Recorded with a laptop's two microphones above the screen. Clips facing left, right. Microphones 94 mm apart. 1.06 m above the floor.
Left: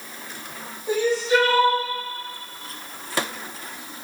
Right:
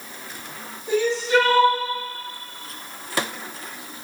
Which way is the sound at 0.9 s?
15° left (ahead or behind).